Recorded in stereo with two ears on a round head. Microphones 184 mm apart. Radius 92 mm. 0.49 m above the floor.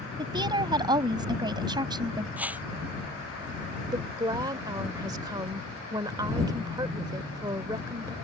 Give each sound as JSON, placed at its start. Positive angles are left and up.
{"t": 0.2, "sound": "a woman speaking", "side_deg": -20}
{"t": 2.4, "sound": "a whoosh", "side_deg": -10}
{"t": 3.9, "sound": "a woman speaking", "side_deg": -20}